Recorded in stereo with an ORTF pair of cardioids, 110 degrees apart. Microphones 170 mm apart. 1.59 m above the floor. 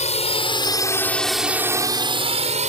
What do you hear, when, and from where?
0.0 s a drone: 40° left; by 2.7 s 45° right